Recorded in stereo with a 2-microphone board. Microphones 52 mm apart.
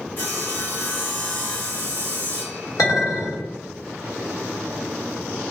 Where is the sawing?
35° left (ahead or behind), 0.8 m.